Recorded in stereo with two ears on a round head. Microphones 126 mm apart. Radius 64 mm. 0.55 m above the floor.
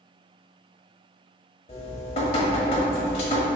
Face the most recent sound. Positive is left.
turn(degrees=45)  # may be behind; listen again after turning